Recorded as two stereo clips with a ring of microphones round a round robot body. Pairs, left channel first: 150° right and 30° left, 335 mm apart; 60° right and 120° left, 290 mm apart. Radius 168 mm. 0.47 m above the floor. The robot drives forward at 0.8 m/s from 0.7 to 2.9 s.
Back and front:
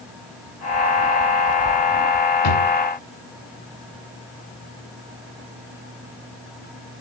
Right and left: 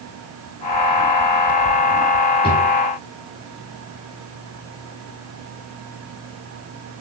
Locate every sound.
2.4 s a drawer: 135° right, 1.7 m; by 2.7 s 140° right, 1.9 m